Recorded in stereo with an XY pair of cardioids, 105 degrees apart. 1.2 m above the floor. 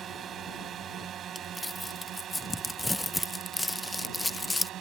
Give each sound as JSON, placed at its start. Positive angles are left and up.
{"t": 0.0, "sound": "a drone", "azimuth_deg": -50}
{"t": 1.4, "sound": "crumpling", "azimuth_deg": 15}